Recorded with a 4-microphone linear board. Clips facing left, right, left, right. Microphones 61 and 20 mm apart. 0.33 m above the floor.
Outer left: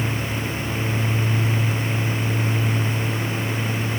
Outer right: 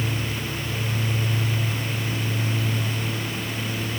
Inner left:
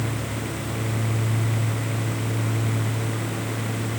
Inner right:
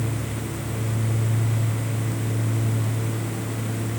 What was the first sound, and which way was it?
Only background noise.